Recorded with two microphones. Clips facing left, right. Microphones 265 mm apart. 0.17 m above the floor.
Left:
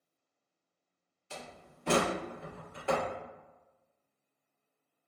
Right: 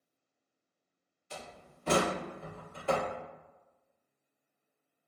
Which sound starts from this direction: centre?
A door slam, at 1.3 s.